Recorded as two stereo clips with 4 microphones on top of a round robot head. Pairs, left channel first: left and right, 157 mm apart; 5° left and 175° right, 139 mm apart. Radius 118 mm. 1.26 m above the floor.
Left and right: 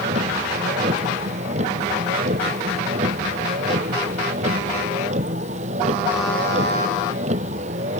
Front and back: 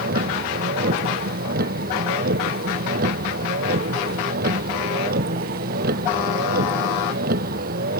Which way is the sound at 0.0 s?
145° right.